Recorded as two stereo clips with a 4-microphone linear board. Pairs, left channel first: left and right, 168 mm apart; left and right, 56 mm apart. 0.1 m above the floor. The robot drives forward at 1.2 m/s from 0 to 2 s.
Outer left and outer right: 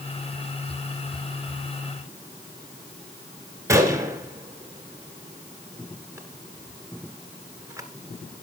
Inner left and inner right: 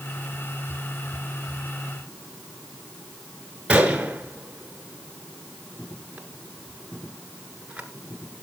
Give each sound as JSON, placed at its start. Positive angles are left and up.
{"t": 3.7, "sound": "a gunshot", "side_deg": -20, "distance_m": 1.2}